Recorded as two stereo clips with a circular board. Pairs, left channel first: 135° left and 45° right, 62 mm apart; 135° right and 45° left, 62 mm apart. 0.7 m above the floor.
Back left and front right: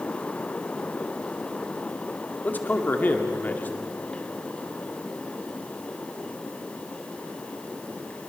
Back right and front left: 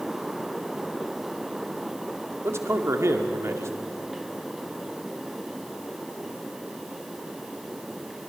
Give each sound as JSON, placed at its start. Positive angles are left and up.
{"t": 2.4, "sound": "a man speaking", "azimuth_deg": 75, "distance_m": 1.9}